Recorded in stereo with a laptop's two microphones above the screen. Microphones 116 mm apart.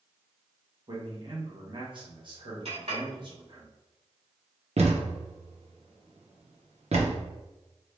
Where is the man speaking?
45° right (ahead or behind), 1.3 m.